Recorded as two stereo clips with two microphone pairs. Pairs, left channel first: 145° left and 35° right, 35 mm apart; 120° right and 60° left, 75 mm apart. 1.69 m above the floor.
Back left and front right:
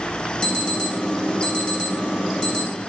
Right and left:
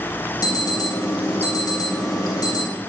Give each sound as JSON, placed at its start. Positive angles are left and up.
{"t": 0.4, "sound": "an alarm", "azimuth_deg": -150, "distance_m": 3.0}